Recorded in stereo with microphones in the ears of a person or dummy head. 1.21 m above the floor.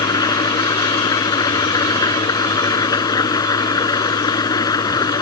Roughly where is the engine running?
Left.